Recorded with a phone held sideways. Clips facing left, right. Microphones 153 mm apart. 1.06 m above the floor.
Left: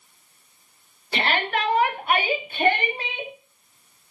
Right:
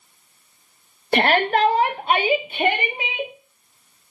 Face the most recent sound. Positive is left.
turn(degrees=-10)  # may be behind; listen again after turning